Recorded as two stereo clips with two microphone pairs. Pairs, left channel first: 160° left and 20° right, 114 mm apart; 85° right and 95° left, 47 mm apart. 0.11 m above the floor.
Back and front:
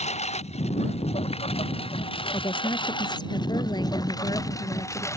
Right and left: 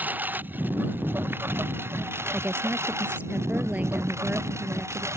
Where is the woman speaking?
130° left.